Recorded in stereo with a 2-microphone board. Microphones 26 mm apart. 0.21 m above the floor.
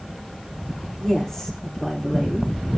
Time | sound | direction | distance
1.0 | a woman speaking | 20° left (ahead or behind) | 10 m